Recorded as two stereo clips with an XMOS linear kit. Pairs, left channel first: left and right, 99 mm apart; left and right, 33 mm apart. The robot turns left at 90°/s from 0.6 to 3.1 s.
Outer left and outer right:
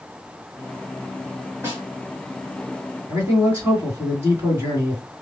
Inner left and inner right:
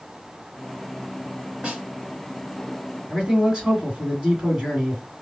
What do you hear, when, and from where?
1.6 s a snare drum: 25° right (ahead or behind), 1.3 m
3.1 s a man speaking: 25° right (ahead or behind), 2 m